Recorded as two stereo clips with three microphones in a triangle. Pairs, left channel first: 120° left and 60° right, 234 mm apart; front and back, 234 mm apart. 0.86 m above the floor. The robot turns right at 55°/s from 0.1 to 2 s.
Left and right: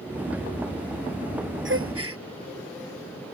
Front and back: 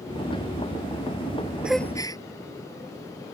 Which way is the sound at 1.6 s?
95° right.